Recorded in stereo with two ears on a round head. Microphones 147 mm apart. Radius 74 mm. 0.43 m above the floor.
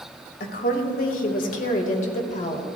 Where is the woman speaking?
60° left (ahead or behind), 2 m; by 2.6 s 40° left (ahead or behind), 1.7 m.